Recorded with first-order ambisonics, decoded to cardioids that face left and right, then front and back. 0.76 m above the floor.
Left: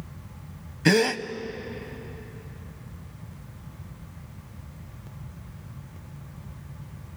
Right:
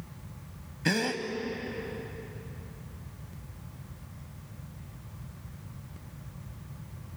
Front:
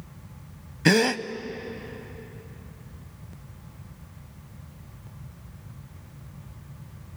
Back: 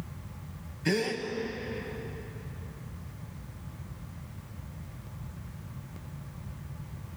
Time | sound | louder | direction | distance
0.8 | a gasp | left 8 dB, front 9 dB | 25° left | 0.9 m